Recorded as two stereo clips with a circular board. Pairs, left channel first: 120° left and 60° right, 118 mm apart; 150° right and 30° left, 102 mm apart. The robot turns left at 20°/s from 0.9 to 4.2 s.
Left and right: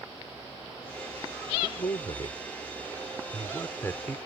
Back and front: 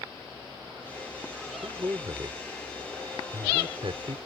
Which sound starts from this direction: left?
A man speaking, at 1.6 s.